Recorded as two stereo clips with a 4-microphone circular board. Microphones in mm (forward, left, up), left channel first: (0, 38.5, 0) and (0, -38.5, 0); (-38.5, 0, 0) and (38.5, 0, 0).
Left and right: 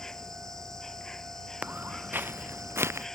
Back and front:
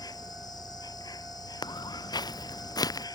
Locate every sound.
0.0 s an insect: 175° left
1.6 s footsteps: 160° right; by 3.1 s 145° right